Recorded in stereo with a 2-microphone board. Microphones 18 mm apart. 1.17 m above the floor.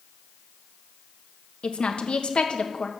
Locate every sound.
1.6 s a woman speaking: 65° left (ahead or behind), 1.1 m